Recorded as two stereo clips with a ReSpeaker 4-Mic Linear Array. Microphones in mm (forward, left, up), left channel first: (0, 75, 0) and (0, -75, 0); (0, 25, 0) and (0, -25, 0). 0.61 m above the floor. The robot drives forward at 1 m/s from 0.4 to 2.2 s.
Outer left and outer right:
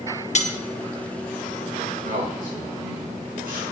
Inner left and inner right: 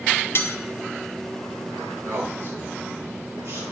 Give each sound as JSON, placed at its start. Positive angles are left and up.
{"t": 0.3, "sound": "cutlery clinking", "side_deg": 50, "distance_m": 1.0}
{"t": 2.0, "sound": "a man speaking", "side_deg": -70, "distance_m": 8.5}